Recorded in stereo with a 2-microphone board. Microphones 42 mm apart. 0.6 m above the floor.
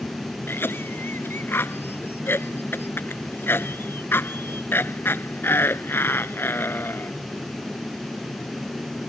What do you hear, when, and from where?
0.5 s a cough: 60° left (ahead or behind)